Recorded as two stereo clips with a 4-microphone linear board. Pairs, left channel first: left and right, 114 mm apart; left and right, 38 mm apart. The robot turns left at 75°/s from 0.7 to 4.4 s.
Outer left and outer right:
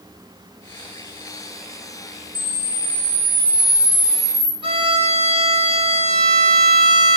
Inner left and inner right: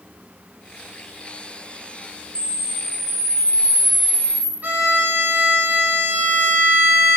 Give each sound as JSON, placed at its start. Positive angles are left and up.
{"t": 2.4, "sound": "a camera shutter", "azimuth_deg": -60, "distance_m": 0.8}
{"t": 4.6, "sound": "a violin", "side_deg": -45, "distance_m": 3.5}